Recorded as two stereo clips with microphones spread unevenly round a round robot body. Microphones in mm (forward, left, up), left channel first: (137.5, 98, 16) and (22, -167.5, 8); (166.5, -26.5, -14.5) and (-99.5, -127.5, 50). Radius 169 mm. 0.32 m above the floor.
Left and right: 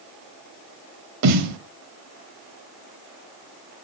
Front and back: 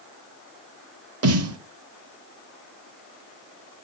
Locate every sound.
1.2 s a snare drum: 120° right, 0.9 m